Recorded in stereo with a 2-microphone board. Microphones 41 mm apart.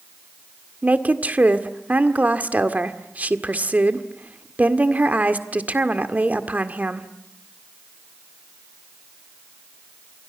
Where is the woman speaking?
40° right (ahead or behind), 1.7 m.